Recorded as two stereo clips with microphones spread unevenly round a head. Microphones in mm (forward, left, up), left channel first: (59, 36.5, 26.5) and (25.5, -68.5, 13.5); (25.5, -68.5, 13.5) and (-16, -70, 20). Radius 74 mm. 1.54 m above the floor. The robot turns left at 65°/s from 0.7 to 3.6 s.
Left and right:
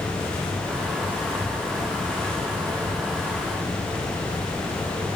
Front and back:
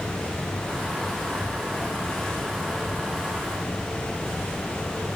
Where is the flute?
I don't hear a flute.